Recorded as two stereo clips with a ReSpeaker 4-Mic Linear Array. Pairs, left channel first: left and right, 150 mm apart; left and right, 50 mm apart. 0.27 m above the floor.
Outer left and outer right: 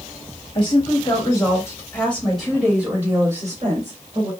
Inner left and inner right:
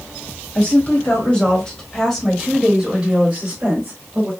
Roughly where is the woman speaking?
Left.